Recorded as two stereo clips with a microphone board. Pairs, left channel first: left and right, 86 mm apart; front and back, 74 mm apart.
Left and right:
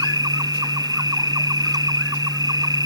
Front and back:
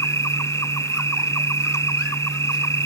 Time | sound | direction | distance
0.0 | an insect | 50° right | ?